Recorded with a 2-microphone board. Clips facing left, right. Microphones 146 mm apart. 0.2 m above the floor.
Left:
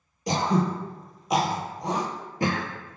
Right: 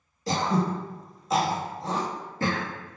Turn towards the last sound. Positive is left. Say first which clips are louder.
# left 1 dB
turn(degrees=15)  # may be behind; listen again after turning